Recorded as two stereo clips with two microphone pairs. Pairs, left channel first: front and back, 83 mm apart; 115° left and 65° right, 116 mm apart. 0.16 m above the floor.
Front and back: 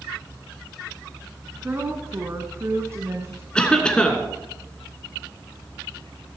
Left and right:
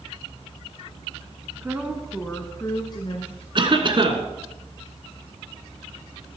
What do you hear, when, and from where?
1.6 s a woman speaking: 130° right, 1.4 m; by 3.5 s 130° left, 1.8 m
3.5 s a cough: 75° right, 2 m